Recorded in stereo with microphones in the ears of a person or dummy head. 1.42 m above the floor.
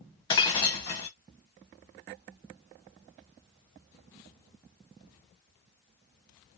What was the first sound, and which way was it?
Breaking glass, 20° left (ahead or behind).